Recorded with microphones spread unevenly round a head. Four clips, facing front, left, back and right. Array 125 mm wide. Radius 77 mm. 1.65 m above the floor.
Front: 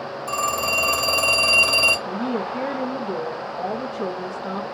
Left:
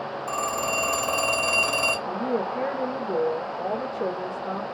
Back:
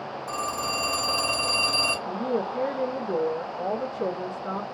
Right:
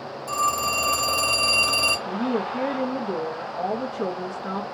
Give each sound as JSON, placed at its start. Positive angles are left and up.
{"t": 0.3, "sound": "a phone ringing", "azimuth_deg": -30, "distance_m": 0.9}
{"t": 2.0, "sound": "a woman speaking", "azimuth_deg": -75, "distance_m": 1.1}